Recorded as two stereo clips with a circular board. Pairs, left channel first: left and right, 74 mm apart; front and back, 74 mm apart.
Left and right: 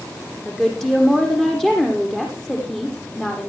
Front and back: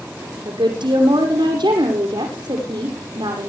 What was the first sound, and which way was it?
A woman speaking, 175° left.